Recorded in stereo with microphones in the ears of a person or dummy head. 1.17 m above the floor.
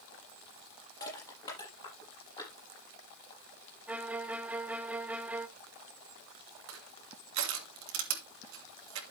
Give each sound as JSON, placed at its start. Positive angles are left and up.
{"t": 1.0, "sound": "crushing", "side_deg": 25, "distance_m": 7.0}
{"t": 3.9, "sound": "a violin", "side_deg": -5, "distance_m": 1.0}
{"t": 6.7, "sound": "crushing", "side_deg": -70, "distance_m": 2.5}